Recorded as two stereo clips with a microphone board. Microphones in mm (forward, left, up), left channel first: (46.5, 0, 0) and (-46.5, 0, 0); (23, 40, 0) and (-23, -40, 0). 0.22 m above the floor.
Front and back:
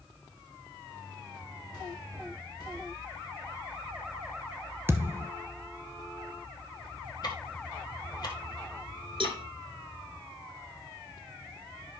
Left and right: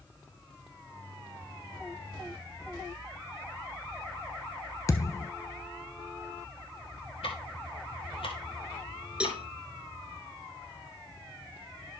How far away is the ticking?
About 1.8 m.